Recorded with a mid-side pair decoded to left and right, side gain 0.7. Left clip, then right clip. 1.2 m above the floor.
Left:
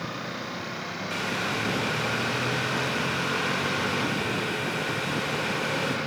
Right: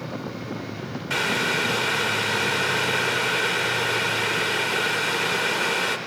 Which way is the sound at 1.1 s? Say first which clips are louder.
Right 7 dB; 45° right.